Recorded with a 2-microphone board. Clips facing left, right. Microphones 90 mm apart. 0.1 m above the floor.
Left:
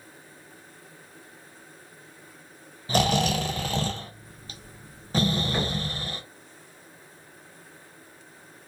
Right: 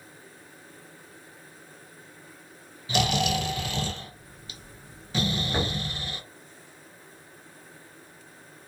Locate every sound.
2.9 s snoring: 40° left (ahead or behind), 0.6 m
5.5 s knocking: 20° right (ahead or behind), 1.5 m